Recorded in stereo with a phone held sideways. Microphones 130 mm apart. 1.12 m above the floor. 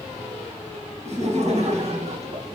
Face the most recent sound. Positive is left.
turn(degrees=-50)  # may be behind; listen again after turning